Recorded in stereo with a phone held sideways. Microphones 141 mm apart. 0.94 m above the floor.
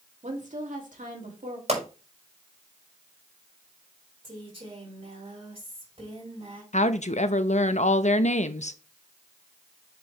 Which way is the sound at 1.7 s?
55° right (ahead or behind).